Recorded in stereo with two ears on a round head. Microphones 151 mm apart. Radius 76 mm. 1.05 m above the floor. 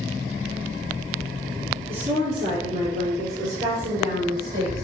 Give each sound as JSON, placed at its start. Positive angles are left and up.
{"t": 1.9, "sound": "a woman speaking", "side_deg": -15, "distance_m": 3.0}